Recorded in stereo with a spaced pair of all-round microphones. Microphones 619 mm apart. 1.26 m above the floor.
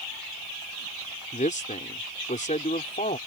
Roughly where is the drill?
I don't hear a drill.